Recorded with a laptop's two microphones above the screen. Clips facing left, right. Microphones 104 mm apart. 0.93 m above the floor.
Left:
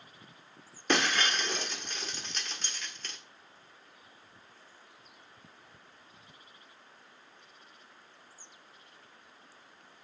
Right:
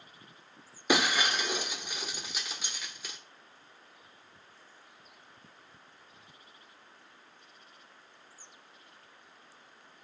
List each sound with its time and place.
0.9 s breaking glass: 10° right (ahead or behind), 1.2 m